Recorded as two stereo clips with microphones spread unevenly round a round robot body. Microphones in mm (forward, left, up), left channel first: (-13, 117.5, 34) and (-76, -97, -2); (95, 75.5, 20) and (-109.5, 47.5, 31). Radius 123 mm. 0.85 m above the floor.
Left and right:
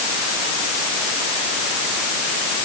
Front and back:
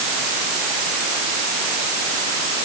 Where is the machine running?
I don't hear a machine running.